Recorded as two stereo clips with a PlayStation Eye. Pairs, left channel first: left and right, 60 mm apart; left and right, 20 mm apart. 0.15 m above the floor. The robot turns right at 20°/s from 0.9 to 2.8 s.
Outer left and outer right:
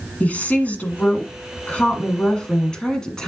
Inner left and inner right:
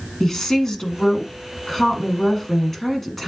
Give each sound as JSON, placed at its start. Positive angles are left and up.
{"t": 0.2, "sound": "a woman speaking", "side_deg": 25, "distance_m": 1.3}